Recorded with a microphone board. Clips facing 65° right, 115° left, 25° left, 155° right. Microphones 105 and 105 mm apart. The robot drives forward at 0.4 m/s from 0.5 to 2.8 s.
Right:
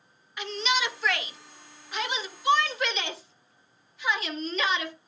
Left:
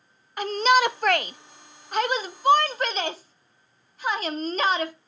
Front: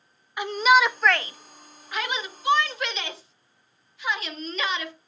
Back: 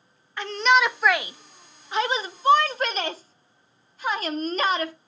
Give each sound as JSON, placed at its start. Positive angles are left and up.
{"t": 0.4, "sound": "a shout", "azimuth_deg": 95, "distance_m": 0.6}